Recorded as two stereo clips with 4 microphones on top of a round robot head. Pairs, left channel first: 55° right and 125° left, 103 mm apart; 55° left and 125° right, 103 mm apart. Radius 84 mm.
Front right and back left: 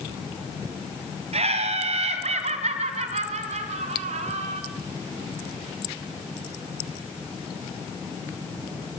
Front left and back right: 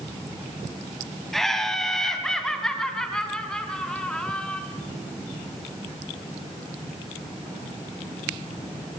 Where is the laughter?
145° left, 3.5 m; by 4.6 s 140° left, 5 m.